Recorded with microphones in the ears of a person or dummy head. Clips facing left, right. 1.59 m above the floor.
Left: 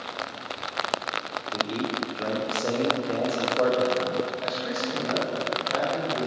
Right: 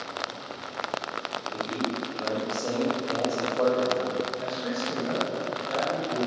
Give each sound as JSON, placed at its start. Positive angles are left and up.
{"t": 1.5, "sound": "a man speaking", "side_deg": 20, "distance_m": 0.6}
{"t": 4.4, "sound": "a man speaking", "side_deg": -30, "distance_m": 0.8}